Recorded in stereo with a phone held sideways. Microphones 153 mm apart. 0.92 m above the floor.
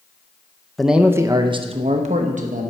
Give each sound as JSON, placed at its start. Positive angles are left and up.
{"t": 0.8, "sound": "a man speaking", "side_deg": 0, "distance_m": 0.7}